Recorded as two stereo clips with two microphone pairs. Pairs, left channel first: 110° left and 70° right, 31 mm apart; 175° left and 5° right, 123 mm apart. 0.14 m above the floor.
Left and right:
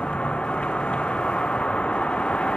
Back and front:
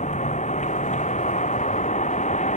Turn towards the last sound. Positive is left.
turn(degrees=165)